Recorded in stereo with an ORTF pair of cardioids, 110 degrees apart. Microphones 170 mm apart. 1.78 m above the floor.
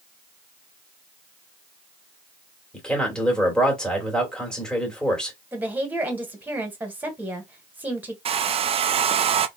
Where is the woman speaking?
10° right, 1.9 m.